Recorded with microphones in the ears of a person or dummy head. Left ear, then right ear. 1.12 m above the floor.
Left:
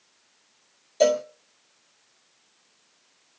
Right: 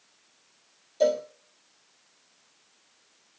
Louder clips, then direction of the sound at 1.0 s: Left 3 dB; 45° left (ahead or behind).